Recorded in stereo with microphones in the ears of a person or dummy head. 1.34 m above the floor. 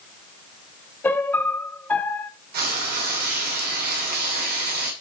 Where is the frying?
50° right (ahead or behind), 2.5 m.